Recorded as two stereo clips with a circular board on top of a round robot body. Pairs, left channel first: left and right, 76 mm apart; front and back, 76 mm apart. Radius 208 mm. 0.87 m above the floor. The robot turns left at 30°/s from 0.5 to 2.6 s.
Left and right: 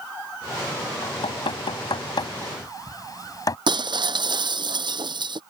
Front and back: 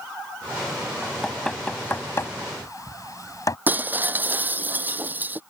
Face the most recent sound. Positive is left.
turn(degrees=-115)